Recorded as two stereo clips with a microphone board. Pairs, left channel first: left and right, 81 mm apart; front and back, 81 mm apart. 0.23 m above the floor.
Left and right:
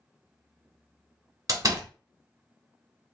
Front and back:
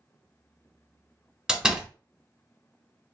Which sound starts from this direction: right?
A door slam, at 1.5 s.